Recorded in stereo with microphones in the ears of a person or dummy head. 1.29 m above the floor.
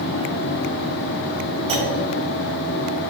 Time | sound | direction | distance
1.7 | a clunk | 30° right (ahead or behind) | 3.5 m